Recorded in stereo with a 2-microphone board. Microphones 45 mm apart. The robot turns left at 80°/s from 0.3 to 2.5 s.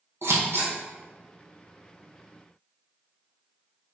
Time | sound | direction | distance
0.2 | scissors | 80° right | 3 m